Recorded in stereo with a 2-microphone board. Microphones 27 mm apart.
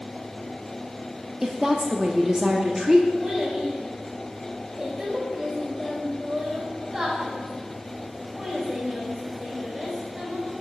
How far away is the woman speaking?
About 0.7 m.